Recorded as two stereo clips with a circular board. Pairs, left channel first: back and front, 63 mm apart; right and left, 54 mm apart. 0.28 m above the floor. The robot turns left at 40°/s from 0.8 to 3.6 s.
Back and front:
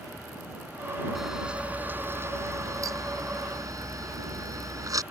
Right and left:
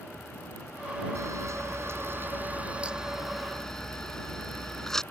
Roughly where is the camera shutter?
Left.